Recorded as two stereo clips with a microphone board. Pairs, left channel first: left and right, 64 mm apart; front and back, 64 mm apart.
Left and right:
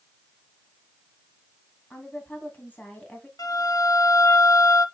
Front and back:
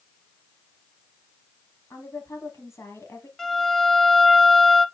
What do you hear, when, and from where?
1.9 s a woman speaking: 30° left, 2 m
3.4 s a violin: 85° left, 0.7 m